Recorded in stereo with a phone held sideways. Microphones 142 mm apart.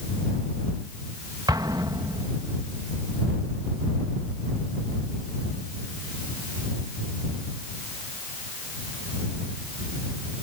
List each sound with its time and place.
1.5 s an explosion: 25° right (ahead or behind)